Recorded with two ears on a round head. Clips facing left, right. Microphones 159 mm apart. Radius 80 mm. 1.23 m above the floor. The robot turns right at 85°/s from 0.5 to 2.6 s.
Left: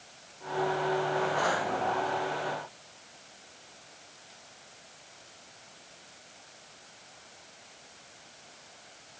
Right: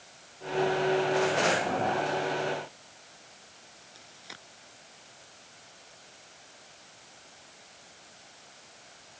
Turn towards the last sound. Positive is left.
turn(degrees=-70)  # may be behind; listen again after turning